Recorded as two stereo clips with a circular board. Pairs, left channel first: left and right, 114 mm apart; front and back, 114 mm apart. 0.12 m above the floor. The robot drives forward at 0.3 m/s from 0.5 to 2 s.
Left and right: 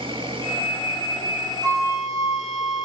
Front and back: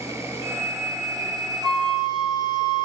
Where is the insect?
120° right, 1.5 m; by 2.9 s 135° right, 1.7 m.